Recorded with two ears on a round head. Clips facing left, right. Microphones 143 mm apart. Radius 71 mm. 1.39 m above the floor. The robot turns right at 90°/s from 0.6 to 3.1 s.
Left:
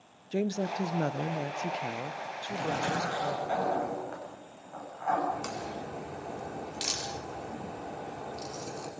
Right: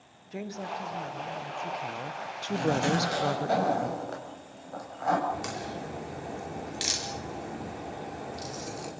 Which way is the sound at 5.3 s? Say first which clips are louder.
Right 1 dB; 5° right (ahead or behind).